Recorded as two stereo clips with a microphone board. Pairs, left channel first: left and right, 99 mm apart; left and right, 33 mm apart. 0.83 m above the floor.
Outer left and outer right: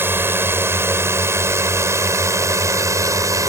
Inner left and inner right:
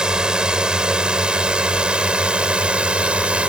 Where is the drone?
25° right (ahead or behind); by 3.5 s 35° right (ahead or behind).